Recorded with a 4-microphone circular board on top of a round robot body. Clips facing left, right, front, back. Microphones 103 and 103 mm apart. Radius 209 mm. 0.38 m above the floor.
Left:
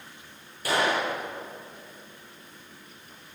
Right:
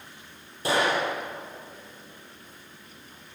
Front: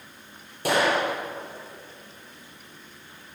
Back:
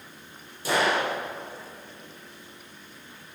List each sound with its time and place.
0.7 s a gunshot: 25° right, 8 m